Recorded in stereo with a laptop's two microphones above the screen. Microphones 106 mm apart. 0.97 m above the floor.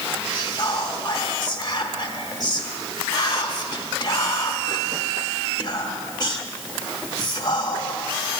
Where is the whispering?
40° left (ahead or behind), 1.1 m.